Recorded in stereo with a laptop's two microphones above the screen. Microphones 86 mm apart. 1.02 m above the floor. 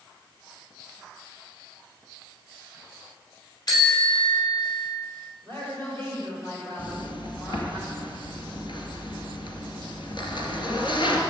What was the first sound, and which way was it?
A bicycle bell, 50° left (ahead or behind).